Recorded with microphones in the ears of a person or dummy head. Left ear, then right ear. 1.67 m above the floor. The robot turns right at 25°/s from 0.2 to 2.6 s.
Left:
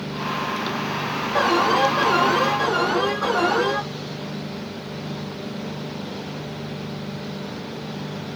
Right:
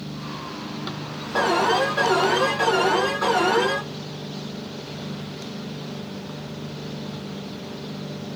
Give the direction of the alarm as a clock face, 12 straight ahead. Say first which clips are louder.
Left 1 dB; 5 o'clock.